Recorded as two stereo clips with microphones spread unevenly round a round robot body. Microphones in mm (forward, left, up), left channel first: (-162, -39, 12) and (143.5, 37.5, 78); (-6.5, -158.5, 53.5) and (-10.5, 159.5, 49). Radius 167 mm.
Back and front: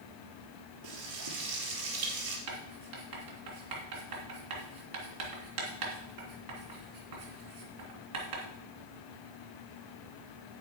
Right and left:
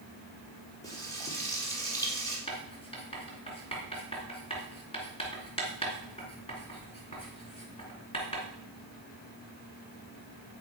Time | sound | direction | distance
0.8 | frying | 10° right | 3.5 m
2.5 | writing | 15° right | 2.5 m